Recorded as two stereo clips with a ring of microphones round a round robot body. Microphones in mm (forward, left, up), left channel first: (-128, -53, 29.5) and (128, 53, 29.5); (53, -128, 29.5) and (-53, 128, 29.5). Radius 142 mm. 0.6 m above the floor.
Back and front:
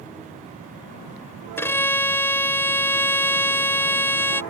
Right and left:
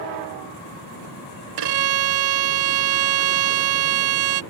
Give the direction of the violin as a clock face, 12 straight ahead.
8 o'clock.